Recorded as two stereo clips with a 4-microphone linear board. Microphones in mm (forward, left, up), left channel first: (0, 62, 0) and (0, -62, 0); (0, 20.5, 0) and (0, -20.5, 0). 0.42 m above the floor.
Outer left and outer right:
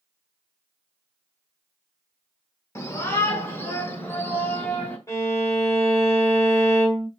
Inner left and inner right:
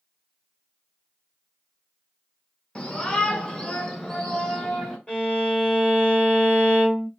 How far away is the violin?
About 1.2 m.